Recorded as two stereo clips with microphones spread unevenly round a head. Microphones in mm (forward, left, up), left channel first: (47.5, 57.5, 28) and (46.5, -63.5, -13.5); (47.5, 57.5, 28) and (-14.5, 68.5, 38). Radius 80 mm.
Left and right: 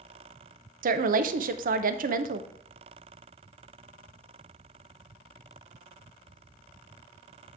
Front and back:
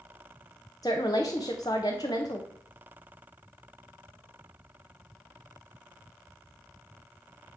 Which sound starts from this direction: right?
A woman speaking, at 0.8 s.